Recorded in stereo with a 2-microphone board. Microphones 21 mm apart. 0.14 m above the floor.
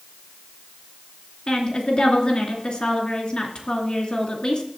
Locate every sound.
1.5 s a woman speaking: 45° left (ahead or behind), 2.5 m